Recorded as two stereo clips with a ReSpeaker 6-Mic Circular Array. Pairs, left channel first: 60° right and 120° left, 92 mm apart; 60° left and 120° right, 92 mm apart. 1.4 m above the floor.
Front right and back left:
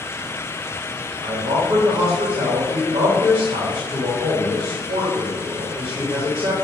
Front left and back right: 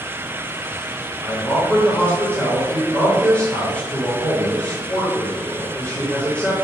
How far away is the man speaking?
About 2.5 m.